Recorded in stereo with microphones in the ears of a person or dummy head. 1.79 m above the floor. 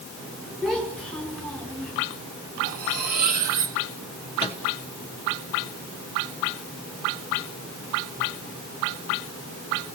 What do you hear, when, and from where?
0.6 s a child speaking: 5° left (ahead or behind), 5.5 m; by 1.9 s 10° left (ahead or behind), 4 m
2.6 s cutlery clinking: 60° right (ahead or behind), 4 m
4.4 s a microwave: 30° left (ahead or behind), 1.3 m